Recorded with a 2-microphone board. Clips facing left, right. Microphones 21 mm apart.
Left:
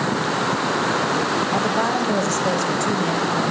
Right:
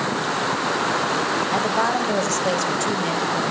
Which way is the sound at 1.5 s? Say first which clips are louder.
Even; 15° right (ahead or behind).